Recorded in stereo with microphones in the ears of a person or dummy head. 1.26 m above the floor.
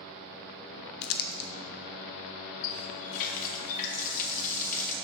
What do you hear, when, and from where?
1.0 s crumpling: 45° left (ahead or behind), 0.6 m
2.6 s a running tap: 45° left (ahead or behind), 0.8 m